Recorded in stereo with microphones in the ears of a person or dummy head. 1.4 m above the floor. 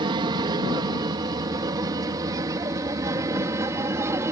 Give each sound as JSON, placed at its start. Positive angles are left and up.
{"t": 0.0, "sound": "an aircraft", "side_deg": -25}